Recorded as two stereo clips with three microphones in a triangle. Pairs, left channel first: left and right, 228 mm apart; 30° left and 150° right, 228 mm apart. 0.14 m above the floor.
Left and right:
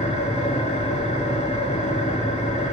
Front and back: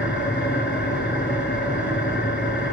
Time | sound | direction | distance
0.0 | an engine running | 40° left | 0.8 m